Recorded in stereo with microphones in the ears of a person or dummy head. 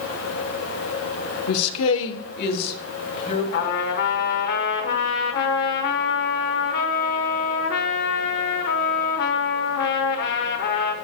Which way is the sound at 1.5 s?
70° left (ahead or behind).